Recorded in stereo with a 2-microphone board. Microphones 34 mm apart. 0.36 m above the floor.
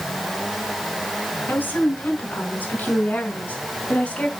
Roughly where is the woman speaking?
Left.